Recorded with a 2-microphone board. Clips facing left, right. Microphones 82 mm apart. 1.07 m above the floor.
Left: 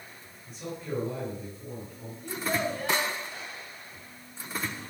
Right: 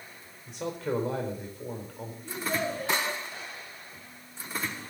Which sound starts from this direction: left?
A child speaking, at 2.2 s.